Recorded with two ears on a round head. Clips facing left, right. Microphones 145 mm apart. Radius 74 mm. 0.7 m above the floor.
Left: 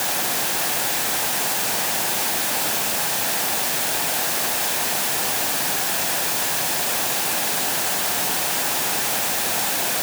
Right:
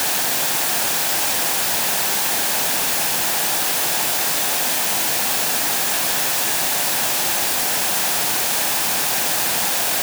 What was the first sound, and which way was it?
Only background noise.